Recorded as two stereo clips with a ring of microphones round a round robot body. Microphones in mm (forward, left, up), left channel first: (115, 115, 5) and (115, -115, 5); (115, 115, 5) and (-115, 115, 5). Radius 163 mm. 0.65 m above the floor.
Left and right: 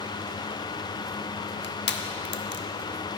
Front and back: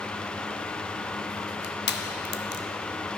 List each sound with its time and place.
1.6 s crushing: 45° left, 0.7 m